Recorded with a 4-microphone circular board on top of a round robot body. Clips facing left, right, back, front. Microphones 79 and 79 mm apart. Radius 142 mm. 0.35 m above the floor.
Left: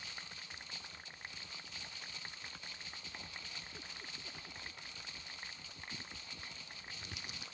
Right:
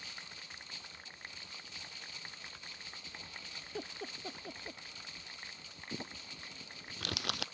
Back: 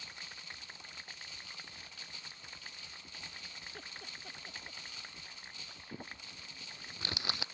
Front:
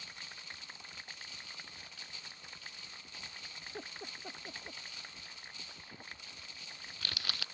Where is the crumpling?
110° right.